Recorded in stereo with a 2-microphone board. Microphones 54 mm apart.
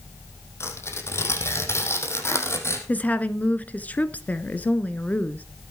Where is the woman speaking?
30° left (ahead or behind), 1.4 m.